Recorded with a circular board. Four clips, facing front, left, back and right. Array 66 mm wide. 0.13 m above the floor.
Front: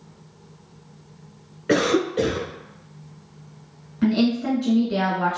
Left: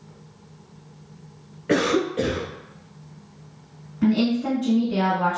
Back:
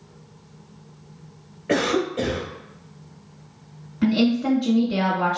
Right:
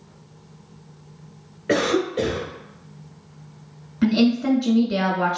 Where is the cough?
15° right, 1.5 m.